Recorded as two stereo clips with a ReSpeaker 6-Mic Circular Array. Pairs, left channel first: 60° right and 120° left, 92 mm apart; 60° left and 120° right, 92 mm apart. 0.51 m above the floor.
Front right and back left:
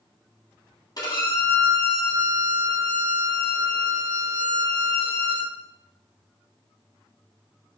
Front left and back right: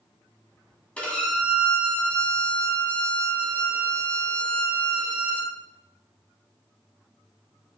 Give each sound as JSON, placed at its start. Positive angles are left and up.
{"t": 1.0, "sound": "a violin", "azimuth_deg": -15, "distance_m": 2.0}